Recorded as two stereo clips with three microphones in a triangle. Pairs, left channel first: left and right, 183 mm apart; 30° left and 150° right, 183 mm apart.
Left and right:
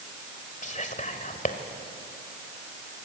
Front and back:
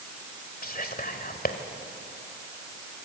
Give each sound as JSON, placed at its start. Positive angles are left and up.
{"t": 0.6, "sound": "whispering", "azimuth_deg": 55, "distance_m": 1.6}